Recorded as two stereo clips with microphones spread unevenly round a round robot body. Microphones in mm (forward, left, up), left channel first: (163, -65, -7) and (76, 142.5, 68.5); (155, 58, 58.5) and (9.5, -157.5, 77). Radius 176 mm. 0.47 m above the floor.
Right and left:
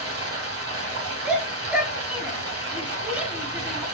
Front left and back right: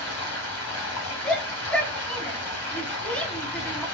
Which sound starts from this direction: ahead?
A shout, at 1.2 s.